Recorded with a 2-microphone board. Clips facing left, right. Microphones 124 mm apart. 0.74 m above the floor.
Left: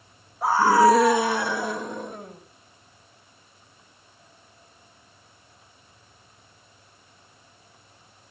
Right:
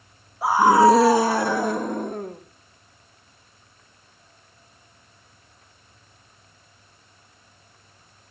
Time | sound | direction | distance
0.4 | a scream | 5° right (ahead or behind) | 0.8 m